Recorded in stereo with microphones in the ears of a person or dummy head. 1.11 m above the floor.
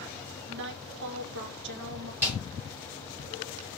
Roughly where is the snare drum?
Centre.